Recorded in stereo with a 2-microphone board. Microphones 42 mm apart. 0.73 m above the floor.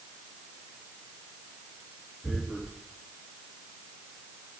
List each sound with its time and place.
2.2 s tearing paper: 5° right (ahead or behind), 3 m